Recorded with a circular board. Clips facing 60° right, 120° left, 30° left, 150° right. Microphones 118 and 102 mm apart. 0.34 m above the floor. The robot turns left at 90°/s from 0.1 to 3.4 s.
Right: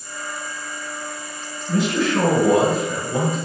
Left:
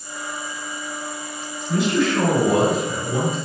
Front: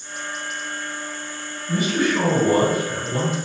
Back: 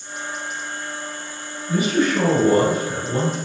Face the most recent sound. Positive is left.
turn(degrees=130)